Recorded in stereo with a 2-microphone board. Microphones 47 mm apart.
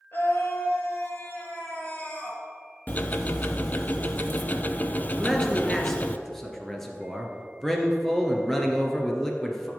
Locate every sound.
0.1 s a scream: 45° left (ahead or behind), 3.5 m; by 2.4 s 35° left (ahead or behind), 3 m
2.9 s ticking: 35° left (ahead or behind), 0.6 m
5.2 s a man speaking: 5° left (ahead or behind), 1.9 m